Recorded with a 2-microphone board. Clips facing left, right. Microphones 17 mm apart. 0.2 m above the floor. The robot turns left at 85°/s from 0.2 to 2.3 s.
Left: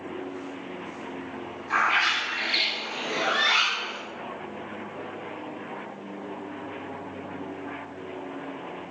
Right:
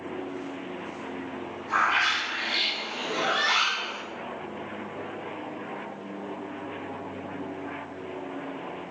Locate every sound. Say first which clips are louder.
1.7 s a bird: left 1 dB; 140° left, 1.2 m; by 4.0 s 90° left, 1.2 m